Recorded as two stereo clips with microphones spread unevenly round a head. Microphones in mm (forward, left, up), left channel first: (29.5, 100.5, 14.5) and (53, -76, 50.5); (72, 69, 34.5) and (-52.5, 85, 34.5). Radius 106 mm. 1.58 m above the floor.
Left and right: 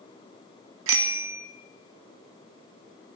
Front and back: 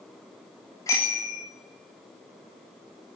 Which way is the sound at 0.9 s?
80° right.